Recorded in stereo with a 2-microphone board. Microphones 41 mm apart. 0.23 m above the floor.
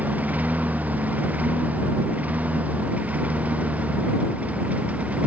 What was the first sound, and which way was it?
A lawn mower, 40° right (ahead or behind).